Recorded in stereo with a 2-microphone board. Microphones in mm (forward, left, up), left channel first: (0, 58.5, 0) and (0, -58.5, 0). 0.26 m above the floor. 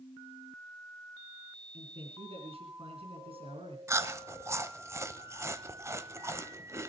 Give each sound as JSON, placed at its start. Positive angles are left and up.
{"t": 1.7, "sound": "a man speaking", "side_deg": -55, "distance_m": 2.5}
{"t": 3.9, "sound": "chewing", "side_deg": -25, "distance_m": 0.7}